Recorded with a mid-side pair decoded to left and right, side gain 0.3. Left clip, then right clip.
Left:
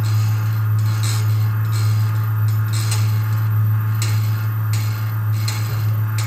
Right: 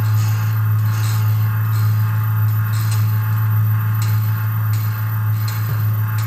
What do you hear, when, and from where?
0.0 s a fan: 60° right, 0.8 m